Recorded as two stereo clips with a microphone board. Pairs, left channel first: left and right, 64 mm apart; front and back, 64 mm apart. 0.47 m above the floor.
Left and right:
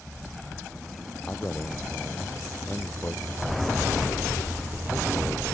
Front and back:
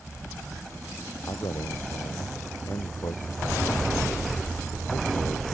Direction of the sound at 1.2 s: 25° left.